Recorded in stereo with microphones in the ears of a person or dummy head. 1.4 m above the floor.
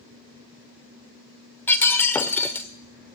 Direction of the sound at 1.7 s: 15° left (ahead or behind).